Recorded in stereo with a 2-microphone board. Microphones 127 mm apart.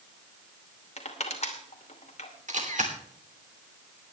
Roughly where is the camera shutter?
Right.